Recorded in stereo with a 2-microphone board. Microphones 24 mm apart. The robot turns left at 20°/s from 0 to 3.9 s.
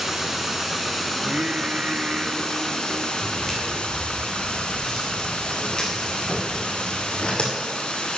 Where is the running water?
165° right, 1.4 m; by 8.2 s 115° left, 1.4 m.